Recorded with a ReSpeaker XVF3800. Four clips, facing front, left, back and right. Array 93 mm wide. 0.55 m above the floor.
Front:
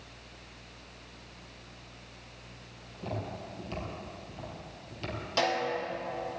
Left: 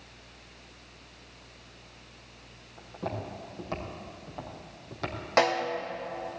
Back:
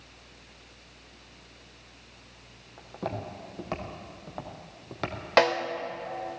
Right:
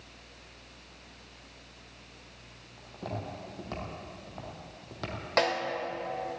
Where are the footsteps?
170° left, 7 m; by 5.2 s 175° left, 5 m.